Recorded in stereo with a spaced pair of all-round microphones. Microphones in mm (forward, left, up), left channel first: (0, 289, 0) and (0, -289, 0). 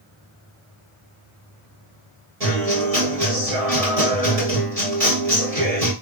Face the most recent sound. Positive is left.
turn(degrees=-90)